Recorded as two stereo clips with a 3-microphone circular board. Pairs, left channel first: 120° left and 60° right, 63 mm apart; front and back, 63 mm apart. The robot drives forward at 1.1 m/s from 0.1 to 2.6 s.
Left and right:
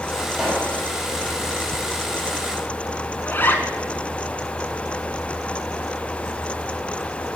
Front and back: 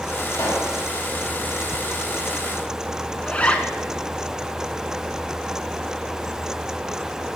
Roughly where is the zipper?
Ahead left.